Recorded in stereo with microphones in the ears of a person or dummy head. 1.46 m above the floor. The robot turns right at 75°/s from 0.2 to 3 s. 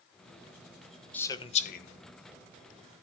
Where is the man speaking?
10° left (ahead or behind), 1.2 m; by 1.9 s 65° left (ahead or behind), 1.2 m.